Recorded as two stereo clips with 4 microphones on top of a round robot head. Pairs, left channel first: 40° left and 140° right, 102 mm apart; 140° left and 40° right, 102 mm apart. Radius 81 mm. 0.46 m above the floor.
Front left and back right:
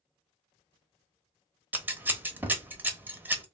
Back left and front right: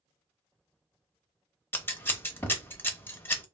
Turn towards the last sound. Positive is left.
turn(degrees=175)